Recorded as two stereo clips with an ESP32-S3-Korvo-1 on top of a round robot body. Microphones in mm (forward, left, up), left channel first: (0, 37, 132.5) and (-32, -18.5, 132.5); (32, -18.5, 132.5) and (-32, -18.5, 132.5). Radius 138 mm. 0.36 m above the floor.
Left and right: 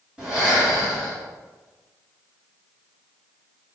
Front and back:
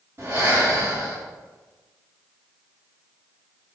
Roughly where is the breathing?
Behind.